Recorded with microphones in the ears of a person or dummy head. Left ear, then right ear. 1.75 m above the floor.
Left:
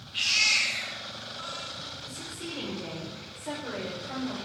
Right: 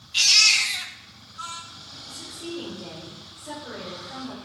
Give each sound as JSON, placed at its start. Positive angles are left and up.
{"t": 0.1, "sound": "a baby crying", "side_deg": -45, "distance_m": 3.0}
{"t": 2.0, "sound": "a woman speaking", "side_deg": 50, "distance_m": 7.5}